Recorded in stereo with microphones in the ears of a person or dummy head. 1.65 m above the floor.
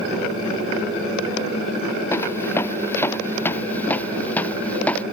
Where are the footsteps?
15° left (ahead or behind); by 5.0 s 5° left (ahead or behind).